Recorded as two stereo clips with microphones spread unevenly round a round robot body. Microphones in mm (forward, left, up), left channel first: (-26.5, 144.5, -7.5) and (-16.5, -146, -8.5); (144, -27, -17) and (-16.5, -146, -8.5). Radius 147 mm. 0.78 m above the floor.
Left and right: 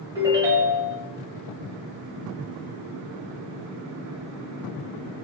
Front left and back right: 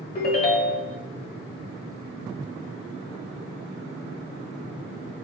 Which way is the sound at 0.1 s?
10° right.